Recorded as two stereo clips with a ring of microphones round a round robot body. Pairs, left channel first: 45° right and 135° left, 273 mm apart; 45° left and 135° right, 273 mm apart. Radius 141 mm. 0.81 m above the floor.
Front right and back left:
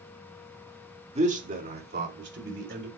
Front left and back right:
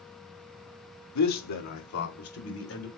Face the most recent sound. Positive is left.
turn(degrees=85)